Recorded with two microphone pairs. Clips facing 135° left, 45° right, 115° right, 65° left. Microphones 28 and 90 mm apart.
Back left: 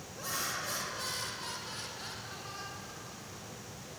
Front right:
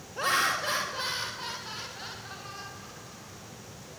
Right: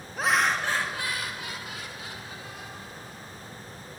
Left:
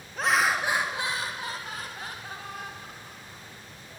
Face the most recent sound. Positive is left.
turn(degrees=40)